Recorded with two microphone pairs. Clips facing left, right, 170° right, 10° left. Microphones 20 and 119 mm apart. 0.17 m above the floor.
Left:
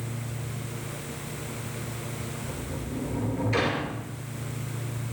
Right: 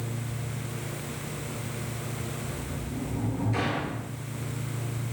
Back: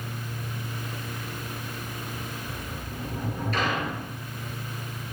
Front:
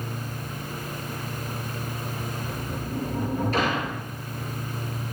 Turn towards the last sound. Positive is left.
turn(degrees=50)